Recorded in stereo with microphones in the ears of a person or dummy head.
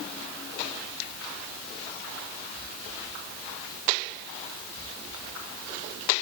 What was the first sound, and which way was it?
Only background noise.